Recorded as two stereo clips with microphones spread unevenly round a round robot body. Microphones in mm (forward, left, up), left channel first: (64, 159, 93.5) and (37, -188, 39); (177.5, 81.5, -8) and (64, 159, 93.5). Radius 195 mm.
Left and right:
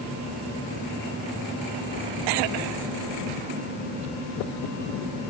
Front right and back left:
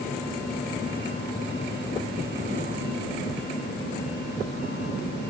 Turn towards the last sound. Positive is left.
No sound to turn to.